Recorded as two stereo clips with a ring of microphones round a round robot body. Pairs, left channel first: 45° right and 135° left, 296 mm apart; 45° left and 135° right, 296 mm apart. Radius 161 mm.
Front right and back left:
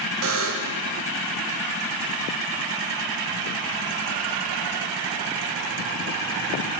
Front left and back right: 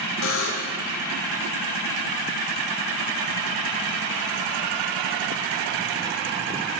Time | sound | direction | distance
0.2 | a buzzer | 90° left | 0.7 m